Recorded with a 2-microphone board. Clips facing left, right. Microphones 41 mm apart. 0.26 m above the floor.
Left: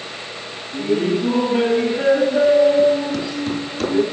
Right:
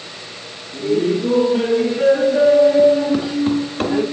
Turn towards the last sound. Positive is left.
turn(degrees=-40)  # may be behind; listen again after turning